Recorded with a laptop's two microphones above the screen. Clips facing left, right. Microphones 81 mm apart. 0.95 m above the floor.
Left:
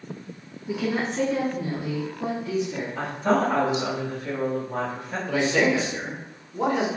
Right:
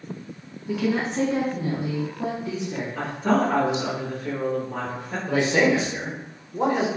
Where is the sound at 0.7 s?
10° left (ahead or behind), 0.5 m; by 2.9 s 50° right (ahead or behind), 1.1 m.